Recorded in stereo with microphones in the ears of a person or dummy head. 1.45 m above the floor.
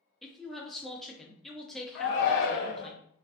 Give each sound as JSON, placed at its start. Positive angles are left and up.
{"t": 0.2, "sound": "a man speaking", "side_deg": 5, "distance_m": 0.5}
{"t": 1.9, "sound": "a shout", "side_deg": 55, "distance_m": 0.6}